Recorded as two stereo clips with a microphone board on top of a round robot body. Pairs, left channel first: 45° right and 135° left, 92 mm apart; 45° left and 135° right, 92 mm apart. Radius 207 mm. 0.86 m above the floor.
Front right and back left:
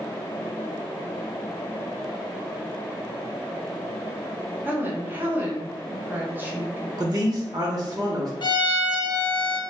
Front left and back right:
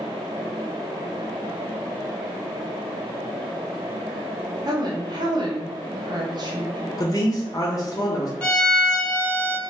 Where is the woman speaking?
160° right, 1.0 m.